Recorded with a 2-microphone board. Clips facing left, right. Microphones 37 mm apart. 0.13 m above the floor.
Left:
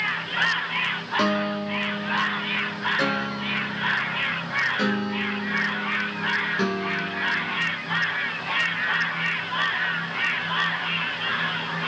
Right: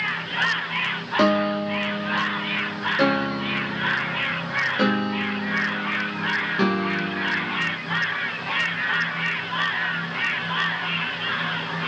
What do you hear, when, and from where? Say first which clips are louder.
1.2 s a piano: right 5 dB; 20° right (ahead or behind), 1.2 m